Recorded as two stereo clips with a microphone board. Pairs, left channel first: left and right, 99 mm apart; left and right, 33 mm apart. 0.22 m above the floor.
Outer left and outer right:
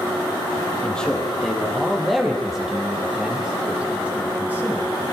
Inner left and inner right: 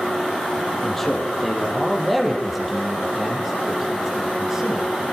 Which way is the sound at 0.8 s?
10° left (ahead or behind).